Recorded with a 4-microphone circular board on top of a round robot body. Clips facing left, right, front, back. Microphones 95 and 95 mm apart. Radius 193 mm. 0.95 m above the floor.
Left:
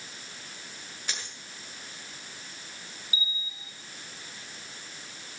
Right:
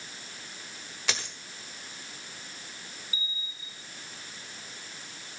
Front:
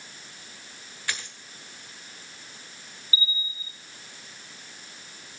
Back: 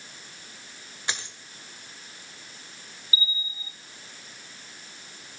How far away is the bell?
About 2 m.